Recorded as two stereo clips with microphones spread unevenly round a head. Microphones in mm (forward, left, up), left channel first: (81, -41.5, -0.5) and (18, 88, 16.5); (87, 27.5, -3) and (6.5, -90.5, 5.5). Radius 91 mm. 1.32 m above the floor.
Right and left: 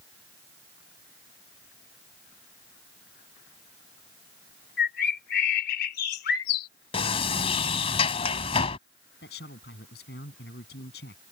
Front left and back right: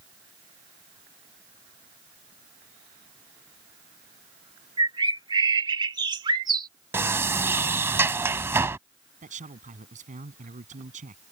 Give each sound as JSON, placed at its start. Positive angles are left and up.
{"t": 4.8, "sound": "a bird", "azimuth_deg": -70}
{"t": 6.9, "sound": "a sliding door", "azimuth_deg": -75}
{"t": 9.2, "sound": "a man speaking", "azimuth_deg": -95}